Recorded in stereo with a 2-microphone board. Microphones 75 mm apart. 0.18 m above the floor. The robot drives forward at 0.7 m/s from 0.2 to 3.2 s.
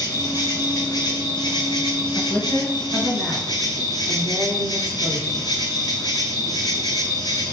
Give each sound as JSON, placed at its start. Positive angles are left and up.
{"t": 0.0, "sound": "an insect", "side_deg": 45, "distance_m": 2.0}
{"t": 2.1, "sound": "a woman speaking", "side_deg": 45, "distance_m": 2.0}